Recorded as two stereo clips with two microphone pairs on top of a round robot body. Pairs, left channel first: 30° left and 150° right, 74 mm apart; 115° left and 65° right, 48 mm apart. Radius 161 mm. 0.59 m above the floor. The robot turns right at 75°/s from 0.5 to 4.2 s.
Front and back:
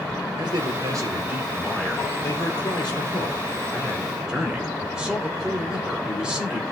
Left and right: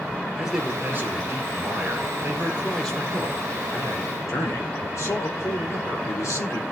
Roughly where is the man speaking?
Behind right.